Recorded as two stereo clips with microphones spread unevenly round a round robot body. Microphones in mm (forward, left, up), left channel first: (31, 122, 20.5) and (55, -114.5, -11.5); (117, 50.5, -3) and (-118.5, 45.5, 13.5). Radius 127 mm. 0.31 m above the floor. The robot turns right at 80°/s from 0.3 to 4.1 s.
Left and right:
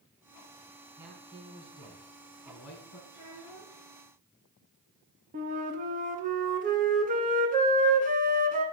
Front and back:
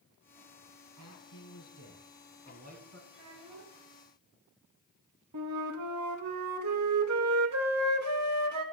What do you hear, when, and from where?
1.0 s a man speaking: 10° right, 2.5 m; by 3.0 s 155° left, 2.5 m
3.1 s a child speaking: 170° right, 4 m; by 3.8 s 115° right, 4 m
5.3 s a flute: 145° right, 0.9 m